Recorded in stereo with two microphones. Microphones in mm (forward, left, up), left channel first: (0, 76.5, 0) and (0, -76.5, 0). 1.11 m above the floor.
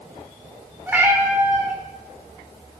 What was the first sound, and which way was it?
A cat meowing, 15° right (ahead or behind).